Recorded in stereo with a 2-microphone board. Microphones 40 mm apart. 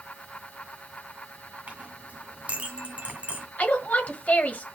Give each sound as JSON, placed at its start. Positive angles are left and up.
{"t": 1.7, "sound": "a clink", "side_deg": -35, "distance_m": 1.7}
{"t": 3.6, "sound": "a woman speaking", "side_deg": 40, "distance_m": 1.3}